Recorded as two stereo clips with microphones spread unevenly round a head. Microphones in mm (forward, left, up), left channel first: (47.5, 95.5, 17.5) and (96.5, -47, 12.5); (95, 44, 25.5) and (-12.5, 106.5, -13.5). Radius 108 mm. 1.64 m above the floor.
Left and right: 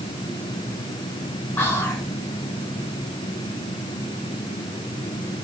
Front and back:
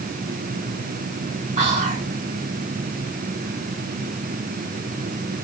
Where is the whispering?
175° right, 0.6 m.